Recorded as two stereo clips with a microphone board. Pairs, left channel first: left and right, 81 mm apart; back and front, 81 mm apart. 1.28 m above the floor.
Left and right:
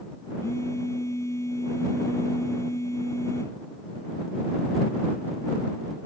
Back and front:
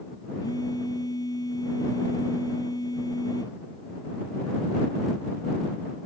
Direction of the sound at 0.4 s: 140° left.